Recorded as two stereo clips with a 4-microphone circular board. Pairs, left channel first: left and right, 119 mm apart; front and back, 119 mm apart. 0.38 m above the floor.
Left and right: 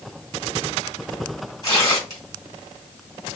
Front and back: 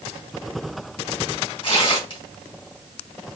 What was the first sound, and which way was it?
Tearing paper, 35° left.